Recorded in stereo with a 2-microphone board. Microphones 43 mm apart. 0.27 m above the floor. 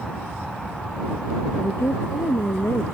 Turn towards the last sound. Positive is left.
turn(degrees=80)